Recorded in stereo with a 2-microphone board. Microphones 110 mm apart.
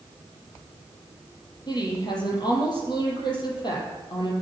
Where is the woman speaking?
45° left (ahead or behind), 5 m.